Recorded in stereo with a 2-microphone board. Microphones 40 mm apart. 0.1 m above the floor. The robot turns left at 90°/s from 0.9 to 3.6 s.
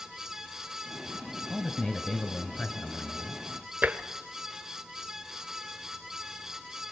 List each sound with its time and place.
1.5 s a man speaking: 10° right (ahead or behind), 1.3 m; by 3.4 s 15° left (ahead or behind), 1.3 m
3.8 s tapping: 40° right (ahead or behind), 1.3 m